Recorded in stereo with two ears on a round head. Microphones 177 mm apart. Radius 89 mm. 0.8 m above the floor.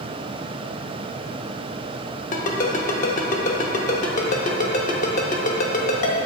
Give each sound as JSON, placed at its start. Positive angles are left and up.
{"t": 2.3, "sound": "a ringtone", "side_deg": 40, "distance_m": 0.7}